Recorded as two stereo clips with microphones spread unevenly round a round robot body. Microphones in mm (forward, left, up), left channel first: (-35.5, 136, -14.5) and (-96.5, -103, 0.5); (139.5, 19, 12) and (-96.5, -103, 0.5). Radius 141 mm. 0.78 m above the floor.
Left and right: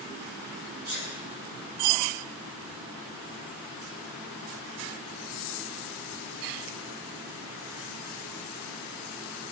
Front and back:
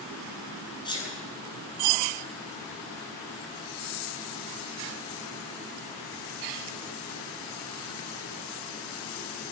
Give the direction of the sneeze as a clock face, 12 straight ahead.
2 o'clock.